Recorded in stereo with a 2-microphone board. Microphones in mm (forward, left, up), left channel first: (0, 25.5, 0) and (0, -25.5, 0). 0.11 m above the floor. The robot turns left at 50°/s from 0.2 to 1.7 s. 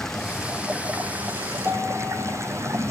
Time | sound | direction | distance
0.0 | running water | 10° left | 2.5 m
1.6 | a piano | 55° right (ahead or behind) | 5 m